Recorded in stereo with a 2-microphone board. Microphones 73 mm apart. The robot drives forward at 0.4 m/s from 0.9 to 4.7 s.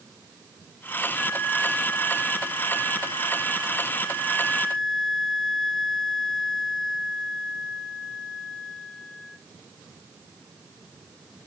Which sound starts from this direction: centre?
A flute, at 1.2 s.